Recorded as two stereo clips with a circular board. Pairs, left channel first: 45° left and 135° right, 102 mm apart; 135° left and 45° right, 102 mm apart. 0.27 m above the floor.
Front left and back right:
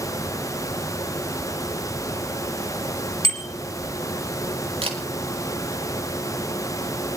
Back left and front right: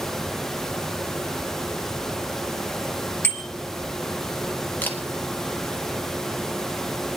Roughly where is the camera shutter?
Behind right.